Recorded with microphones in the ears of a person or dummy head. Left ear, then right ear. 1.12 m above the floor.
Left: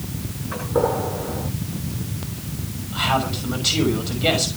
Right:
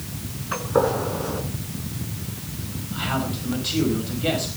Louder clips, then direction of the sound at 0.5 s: Even; 75° right (ahead or behind).